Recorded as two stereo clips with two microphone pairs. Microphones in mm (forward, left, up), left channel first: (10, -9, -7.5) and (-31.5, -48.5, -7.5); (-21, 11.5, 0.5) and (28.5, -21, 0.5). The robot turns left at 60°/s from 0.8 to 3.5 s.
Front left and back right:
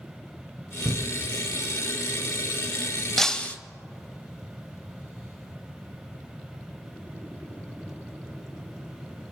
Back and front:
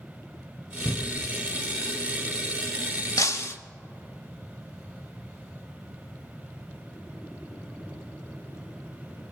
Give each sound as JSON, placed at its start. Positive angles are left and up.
{"t": 0.8, "sound": "a cupboard door", "azimuth_deg": -85, "distance_m": 0.5}
{"t": 3.2, "sound": "breaking glass", "azimuth_deg": 130, "distance_m": 0.6}